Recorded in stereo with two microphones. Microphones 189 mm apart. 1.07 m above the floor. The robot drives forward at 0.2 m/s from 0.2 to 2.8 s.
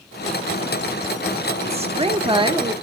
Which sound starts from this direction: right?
A woman speaking, at 1.6 s.